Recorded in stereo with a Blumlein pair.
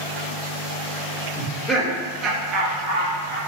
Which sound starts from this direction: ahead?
Laughter, at 1.4 s.